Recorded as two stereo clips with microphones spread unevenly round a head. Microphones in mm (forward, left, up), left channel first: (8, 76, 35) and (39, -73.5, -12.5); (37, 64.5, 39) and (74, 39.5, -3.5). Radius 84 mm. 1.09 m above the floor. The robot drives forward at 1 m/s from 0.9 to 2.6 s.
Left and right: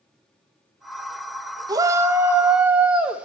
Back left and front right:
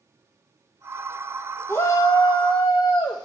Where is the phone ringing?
I don't hear a phone ringing.